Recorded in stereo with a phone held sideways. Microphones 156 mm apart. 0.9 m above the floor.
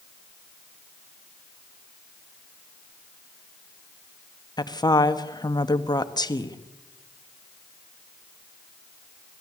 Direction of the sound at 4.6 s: 25° left (ahead or behind).